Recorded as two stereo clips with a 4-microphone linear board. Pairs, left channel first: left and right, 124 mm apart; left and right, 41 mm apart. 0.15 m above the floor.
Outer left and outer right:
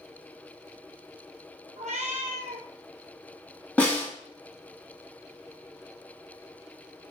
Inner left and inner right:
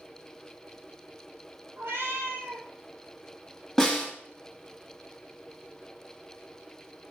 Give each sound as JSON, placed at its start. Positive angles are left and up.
{"t": 1.8, "sound": "a cat meowing", "side_deg": -85, "distance_m": 0.9}
{"t": 3.8, "sound": "a snare drum", "side_deg": 10, "distance_m": 1.7}